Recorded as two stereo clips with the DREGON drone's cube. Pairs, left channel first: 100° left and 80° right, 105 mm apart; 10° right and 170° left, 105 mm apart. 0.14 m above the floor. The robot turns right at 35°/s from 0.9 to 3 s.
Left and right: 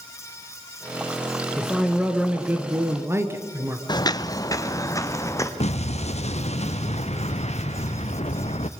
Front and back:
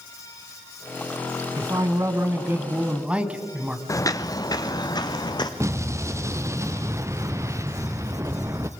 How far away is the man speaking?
About 1.6 m.